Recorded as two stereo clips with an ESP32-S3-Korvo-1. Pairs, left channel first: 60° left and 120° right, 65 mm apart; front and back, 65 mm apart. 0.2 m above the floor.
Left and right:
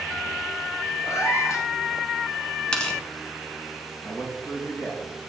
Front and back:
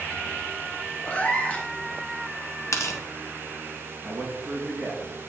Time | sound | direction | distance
1.1 | a cat meowing | 65° left | 1.0 m
2.7 | tearing paper | 10° right | 1.1 m
4.0 | a man speaking | 100° left | 3 m